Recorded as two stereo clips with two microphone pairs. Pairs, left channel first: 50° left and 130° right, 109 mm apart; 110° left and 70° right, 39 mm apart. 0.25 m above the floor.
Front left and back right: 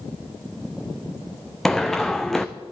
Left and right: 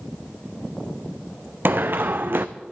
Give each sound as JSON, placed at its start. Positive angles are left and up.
{"t": 1.6, "sound": "running footsteps", "azimuth_deg": -35, "distance_m": 1.0}